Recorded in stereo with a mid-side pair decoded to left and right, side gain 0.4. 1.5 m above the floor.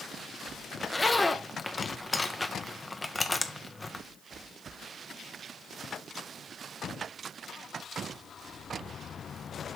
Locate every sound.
0.8 s a zipper: 20° left, 0.9 m